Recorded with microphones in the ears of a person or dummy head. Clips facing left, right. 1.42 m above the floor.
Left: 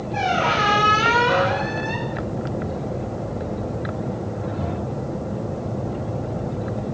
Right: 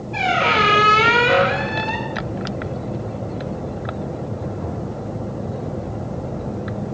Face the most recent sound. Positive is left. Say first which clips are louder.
# right 2 dB
turn(degrees=-30)  # may be behind; listen again after turning